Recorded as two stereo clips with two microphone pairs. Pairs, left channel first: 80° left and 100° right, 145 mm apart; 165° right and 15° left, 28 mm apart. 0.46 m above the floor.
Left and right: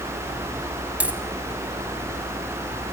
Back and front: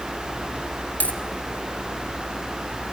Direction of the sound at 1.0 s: 175° left.